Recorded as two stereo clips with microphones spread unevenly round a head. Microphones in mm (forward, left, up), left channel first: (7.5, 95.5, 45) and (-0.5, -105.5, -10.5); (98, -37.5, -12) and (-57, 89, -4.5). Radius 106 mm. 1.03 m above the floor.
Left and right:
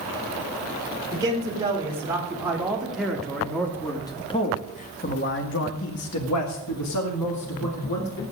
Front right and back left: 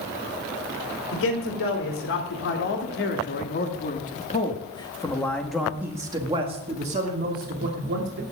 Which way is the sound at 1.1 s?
20° right.